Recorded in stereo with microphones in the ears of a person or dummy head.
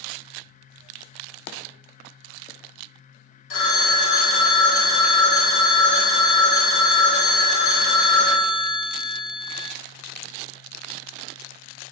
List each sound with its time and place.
3.5 s a phone ringing: 70° left (ahead or behind), 0.8 m